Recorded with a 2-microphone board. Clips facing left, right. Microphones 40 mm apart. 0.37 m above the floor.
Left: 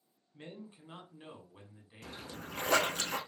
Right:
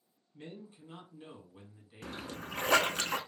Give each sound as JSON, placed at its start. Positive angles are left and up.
{"t": 0.3, "sound": "a man speaking", "side_deg": 30, "distance_m": 1.1}
{"t": 2.0, "sound": "a splash", "side_deg": -65, "distance_m": 0.5}